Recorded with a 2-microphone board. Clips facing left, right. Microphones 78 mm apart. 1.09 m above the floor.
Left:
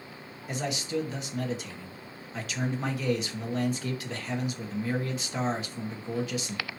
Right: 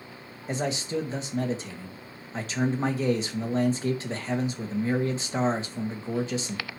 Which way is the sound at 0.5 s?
30° right (ahead or behind).